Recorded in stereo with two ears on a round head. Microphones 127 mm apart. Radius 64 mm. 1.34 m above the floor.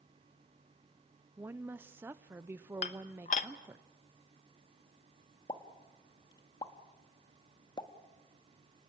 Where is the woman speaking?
15° right (ahead or behind), 0.6 m.